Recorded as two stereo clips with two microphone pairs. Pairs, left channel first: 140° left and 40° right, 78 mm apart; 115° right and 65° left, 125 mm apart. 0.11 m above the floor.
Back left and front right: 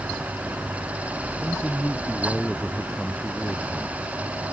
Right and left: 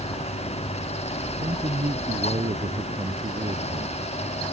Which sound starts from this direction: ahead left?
A man speaking, at 1.4 s.